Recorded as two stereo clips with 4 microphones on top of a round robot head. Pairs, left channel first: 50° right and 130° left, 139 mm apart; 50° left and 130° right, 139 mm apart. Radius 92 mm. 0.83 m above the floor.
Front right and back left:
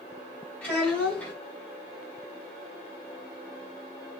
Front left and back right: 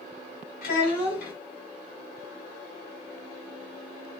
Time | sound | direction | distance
0.6 | a child speaking | 30° left | 2.5 m